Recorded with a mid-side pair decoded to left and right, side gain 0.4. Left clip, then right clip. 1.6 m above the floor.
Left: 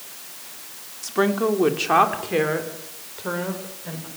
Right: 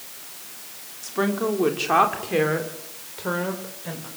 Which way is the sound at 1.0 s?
30° left.